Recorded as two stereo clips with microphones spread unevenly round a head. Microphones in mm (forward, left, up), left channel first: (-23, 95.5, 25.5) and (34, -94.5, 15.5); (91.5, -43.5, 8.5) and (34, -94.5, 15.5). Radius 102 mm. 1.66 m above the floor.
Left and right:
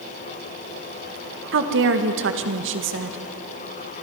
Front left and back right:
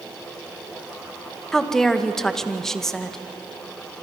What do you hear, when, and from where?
1.5 s a woman speaking: 45° right, 1.9 m